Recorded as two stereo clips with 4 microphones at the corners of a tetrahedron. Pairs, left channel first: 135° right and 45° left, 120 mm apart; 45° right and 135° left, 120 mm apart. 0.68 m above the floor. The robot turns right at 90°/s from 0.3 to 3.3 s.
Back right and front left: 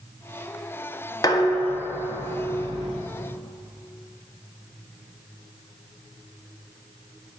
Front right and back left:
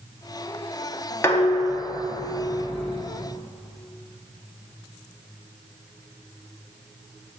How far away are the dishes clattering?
About 0.5 m.